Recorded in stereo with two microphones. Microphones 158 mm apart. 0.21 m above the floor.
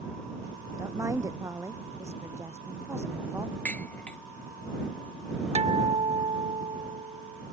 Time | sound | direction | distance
0.8 | a woman speaking | 20° right (ahead or behind) | ?
3.6 | dishes clattering | 10° left (ahead or behind) | ?
5.5 | a guitar | 40° right (ahead or behind) | ?